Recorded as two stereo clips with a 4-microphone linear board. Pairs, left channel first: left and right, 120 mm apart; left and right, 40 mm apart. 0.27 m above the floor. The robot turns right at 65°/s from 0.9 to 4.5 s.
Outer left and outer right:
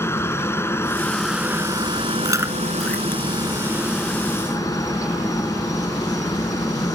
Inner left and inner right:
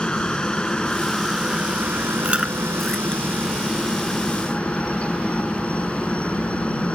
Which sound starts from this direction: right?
Chewing, at 2.2 s.